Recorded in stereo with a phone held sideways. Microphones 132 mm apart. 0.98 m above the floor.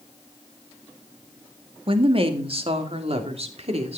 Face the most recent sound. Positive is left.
turn(degrees=-55)  # may be behind; listen again after turning